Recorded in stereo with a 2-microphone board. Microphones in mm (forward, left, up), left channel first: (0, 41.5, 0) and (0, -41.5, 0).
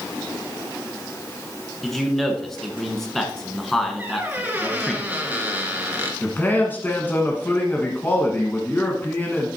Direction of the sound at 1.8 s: 5° left (ahead or behind).